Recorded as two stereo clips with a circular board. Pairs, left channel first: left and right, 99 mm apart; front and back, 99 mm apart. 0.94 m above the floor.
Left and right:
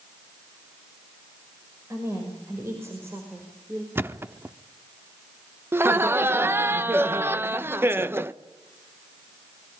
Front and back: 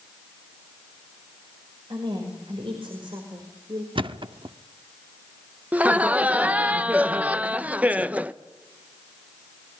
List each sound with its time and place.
1.9 s a woman speaking: 150° right, 5 m; by 3.9 s 155° right, 4 m
4.0 s a thud: 155° right, 0.8 m
5.7 s laughter: 125° right, 0.6 m